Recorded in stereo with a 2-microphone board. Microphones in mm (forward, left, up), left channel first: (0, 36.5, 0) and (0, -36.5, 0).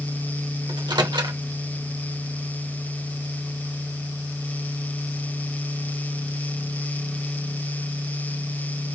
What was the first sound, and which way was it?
A microwave, 75° right (ahead or behind).